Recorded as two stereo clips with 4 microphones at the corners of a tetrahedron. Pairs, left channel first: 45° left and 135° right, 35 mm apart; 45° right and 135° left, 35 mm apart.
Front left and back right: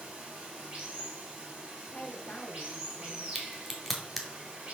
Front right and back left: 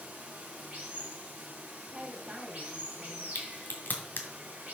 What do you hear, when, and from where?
0.0 s running water: 170° left, 2.5 m
1.8 s a woman speaking: 85° left, 1.2 m
3.4 s a crack: 40° right, 1.9 m